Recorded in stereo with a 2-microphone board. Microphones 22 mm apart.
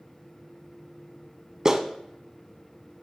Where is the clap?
25° right (ahead or behind), 0.9 m.